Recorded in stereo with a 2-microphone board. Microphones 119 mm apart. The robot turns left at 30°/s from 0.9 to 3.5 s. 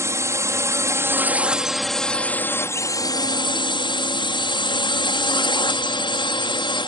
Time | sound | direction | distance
0.0 | a drone | 150° right | ?